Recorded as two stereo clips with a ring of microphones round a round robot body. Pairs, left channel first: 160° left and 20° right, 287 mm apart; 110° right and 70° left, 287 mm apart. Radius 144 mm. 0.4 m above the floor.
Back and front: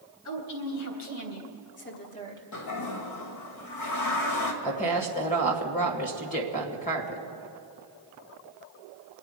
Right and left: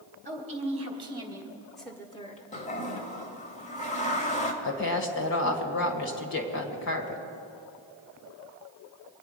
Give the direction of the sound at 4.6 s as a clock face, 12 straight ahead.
5 o'clock.